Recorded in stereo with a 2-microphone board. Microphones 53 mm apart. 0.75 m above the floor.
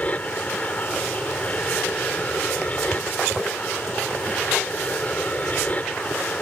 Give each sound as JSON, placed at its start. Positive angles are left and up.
{"t": 0.0, "sound": "an aircraft", "side_deg": 25}